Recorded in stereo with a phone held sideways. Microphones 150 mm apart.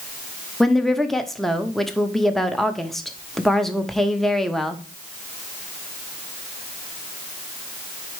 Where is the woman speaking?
Centre (ahead or behind), 0.7 m.